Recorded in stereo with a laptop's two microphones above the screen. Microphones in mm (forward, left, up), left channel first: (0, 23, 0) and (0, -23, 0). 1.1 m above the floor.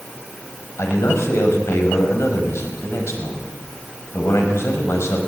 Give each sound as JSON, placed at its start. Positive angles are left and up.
{"t": 0.8, "sound": "a man speaking", "side_deg": 75, "distance_m": 5.5}